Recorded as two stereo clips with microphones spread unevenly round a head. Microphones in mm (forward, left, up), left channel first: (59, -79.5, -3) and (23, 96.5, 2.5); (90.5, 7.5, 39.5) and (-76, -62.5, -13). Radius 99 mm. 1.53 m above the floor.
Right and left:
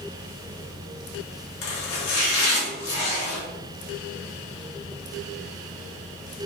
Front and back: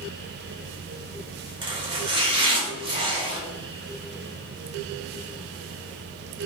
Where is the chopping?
95° right, 1.6 m.